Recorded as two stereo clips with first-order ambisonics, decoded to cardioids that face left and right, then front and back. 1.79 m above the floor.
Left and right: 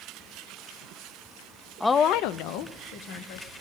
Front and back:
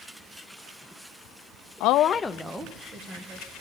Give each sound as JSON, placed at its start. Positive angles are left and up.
{"t": 1.8, "sound": "a woman speaking", "azimuth_deg": 0, "distance_m": 0.5}